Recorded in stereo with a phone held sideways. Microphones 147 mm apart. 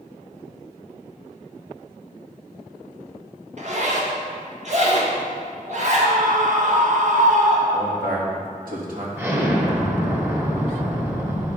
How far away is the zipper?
About 1.7 m.